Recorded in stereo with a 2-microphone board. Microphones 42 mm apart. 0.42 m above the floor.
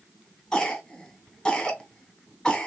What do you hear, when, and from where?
0.5 s a cough: 15° left (ahead or behind), 1.3 m